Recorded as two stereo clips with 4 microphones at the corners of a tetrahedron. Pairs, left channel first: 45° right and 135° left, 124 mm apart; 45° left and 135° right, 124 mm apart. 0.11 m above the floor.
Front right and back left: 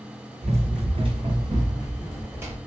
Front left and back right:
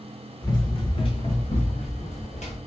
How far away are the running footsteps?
About 1.2 m.